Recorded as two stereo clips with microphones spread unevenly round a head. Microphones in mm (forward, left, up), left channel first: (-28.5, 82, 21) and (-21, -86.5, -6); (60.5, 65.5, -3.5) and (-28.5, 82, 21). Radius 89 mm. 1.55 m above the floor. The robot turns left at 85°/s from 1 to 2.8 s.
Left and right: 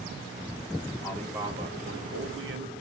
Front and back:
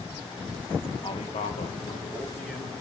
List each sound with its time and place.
1.0 s a man speaking: 20° left, 1.8 m; by 2.7 s 120° right, 1.8 m